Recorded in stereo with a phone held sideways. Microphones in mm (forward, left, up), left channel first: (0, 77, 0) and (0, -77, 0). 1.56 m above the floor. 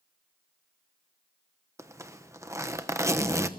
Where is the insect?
No insect in this recording.